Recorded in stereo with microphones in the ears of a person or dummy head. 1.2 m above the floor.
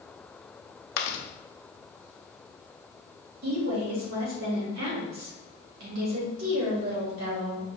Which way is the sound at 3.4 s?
70° right (ahead or behind).